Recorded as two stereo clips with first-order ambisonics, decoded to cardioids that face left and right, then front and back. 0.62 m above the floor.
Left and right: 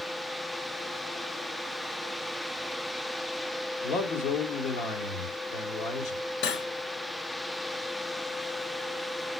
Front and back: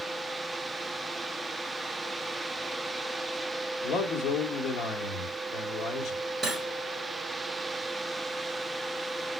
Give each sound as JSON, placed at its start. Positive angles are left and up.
{"t": 3.8, "sound": "a man speaking", "azimuth_deg": 55, "distance_m": 1.6}
{"t": 6.4, "sound": "cutlery clinking", "azimuth_deg": 105, "distance_m": 1.4}